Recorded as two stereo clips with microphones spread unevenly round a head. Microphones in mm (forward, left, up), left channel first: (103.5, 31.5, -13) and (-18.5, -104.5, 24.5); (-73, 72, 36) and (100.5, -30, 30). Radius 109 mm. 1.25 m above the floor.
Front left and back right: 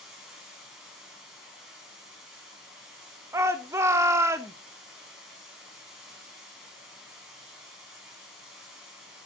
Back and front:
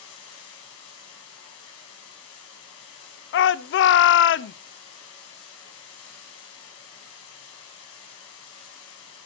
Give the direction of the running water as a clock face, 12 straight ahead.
7 o'clock.